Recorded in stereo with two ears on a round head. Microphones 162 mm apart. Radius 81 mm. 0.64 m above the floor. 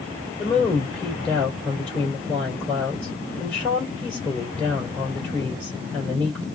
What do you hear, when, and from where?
0.4 s a woman speaking: 5° left (ahead or behind), 2.5 m